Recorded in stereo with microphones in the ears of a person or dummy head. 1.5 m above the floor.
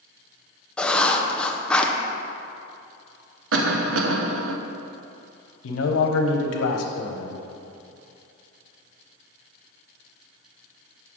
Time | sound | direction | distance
0.8 | writing | 5° left (ahead or behind) | 0.6 m
3.5 | a cough | 85° right | 0.7 m
5.6 | a man speaking | 85° left | 0.9 m